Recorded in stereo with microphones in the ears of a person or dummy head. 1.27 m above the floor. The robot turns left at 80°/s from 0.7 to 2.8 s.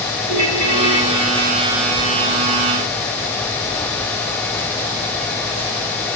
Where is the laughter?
No laughter in this recording.